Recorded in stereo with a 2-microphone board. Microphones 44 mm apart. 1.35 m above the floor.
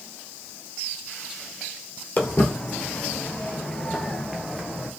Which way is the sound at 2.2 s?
40° left (ahead or behind).